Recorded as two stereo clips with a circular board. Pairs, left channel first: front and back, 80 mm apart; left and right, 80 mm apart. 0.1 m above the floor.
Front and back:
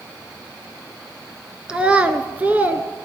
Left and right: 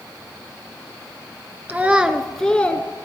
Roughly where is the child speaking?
Behind right.